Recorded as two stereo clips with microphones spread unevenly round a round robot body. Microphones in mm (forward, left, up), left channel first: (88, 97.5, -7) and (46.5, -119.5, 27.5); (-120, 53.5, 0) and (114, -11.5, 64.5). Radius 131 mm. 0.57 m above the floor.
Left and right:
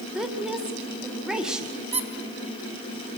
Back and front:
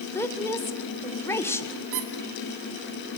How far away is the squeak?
About 1.3 m.